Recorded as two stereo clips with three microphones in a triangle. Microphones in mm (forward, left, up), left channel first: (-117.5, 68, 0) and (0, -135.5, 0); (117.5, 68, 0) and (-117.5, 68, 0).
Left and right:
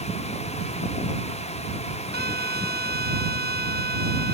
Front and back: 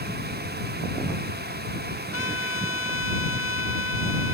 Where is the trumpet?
15° right.